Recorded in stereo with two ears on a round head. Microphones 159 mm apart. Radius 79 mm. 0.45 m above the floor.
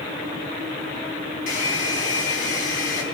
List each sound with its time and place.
1.5 s a hair dryer: 50° left (ahead or behind), 3.5 m